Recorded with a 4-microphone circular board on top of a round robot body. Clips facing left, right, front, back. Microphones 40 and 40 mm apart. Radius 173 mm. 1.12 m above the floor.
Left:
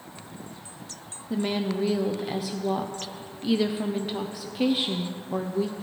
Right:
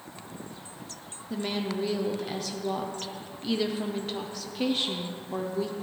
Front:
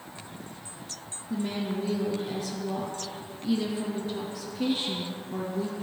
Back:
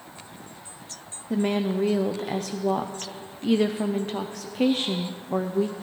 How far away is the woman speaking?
About 0.8 m.